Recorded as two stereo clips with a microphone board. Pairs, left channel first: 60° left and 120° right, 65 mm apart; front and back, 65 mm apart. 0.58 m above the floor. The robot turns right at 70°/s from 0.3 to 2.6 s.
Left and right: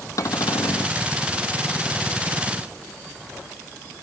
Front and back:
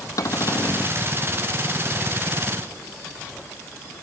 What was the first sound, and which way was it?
A cupboard door, 30° left.